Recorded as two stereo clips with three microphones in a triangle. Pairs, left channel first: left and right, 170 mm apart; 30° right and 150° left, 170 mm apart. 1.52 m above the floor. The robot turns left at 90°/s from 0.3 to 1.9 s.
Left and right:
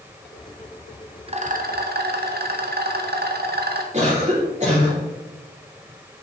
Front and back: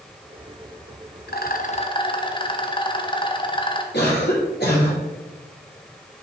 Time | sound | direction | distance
1.3 | a rattle | 35° right | 0.7 m
3.9 | a cough | 45° right | 3 m